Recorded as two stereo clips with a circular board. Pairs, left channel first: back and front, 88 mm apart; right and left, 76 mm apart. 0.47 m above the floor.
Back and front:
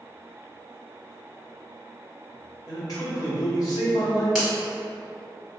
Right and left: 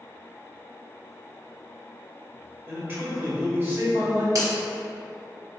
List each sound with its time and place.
2.7 s a man speaking: 150° left, 1.5 m
4.3 s a finger snap: 85° left, 1.5 m